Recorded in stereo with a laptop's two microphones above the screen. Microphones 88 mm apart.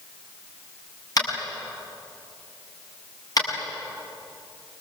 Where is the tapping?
45° left (ahead or behind), 7 m.